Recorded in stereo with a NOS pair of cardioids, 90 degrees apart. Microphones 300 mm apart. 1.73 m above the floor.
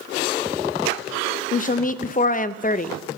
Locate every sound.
1.5 s a woman speaking: 30° left, 0.7 m